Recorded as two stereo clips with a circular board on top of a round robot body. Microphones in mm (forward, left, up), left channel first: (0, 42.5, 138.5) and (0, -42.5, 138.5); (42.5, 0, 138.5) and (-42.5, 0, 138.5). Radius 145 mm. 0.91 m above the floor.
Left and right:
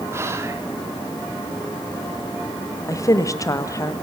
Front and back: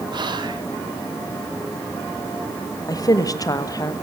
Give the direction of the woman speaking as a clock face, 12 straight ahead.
11 o'clock.